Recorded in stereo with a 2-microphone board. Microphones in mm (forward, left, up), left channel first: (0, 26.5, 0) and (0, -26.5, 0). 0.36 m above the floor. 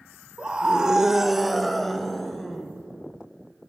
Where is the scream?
20° right (ahead or behind), 1.2 m; by 2.7 s 10° left (ahead or behind), 3 m.